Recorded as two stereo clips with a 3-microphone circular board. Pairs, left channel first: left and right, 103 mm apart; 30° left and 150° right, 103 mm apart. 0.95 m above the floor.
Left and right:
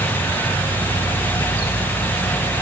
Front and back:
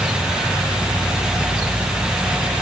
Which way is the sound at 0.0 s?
135° left.